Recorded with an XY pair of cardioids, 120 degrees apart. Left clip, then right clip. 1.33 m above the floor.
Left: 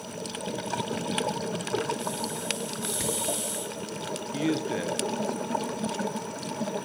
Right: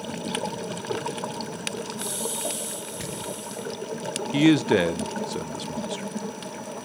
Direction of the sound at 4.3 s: 65° right.